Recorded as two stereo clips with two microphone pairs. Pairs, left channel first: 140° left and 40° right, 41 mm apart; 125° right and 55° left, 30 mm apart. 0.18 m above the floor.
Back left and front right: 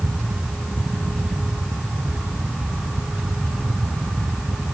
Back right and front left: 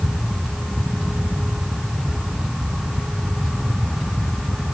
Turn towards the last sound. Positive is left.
No sound to turn to.